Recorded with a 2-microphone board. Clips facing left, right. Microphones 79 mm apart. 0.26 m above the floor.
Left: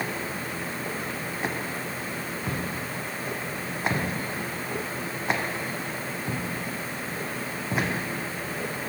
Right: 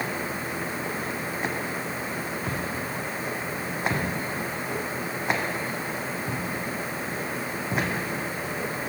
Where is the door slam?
No door slam in this recording.